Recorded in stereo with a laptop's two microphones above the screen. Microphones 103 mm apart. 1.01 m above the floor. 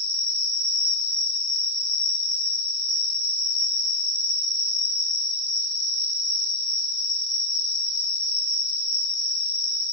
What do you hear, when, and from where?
0.0 s an insect: 45° left (ahead or behind), 1.4 m